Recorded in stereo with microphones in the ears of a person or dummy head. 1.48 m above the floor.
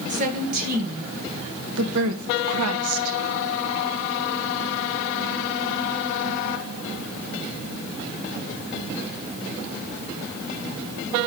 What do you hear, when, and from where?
0.1 s a woman speaking: 40° right (ahead or behind), 2.5 m; by 3.2 s 70° right (ahead or behind), 1.2 m